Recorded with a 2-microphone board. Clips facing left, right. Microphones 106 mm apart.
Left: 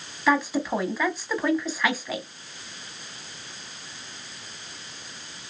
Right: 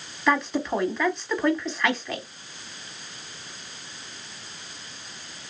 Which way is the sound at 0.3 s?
5° left (ahead or behind).